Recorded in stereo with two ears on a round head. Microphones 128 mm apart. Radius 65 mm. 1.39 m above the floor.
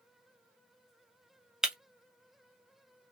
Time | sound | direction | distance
1.6 | breaking glass | 5° right (ahead or behind) | 0.6 m